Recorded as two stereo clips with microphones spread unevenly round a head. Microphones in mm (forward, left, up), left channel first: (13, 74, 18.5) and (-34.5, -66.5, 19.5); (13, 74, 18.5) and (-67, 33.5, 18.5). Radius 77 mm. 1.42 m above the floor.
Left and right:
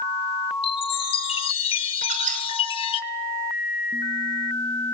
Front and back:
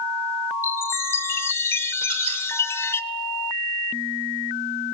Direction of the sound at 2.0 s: 145° right.